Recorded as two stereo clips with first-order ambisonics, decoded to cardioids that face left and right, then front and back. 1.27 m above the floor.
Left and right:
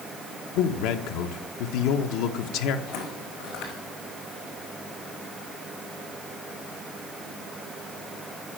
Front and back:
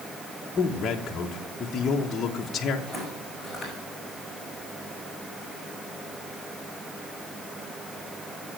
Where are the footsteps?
100° left, 5.5 m.